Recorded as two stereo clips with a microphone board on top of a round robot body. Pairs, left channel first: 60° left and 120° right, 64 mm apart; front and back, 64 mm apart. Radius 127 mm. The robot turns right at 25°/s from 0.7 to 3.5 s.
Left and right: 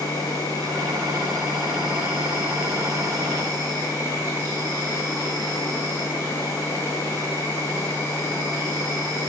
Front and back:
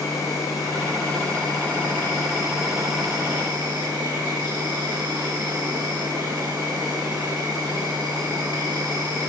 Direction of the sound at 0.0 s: 45° left.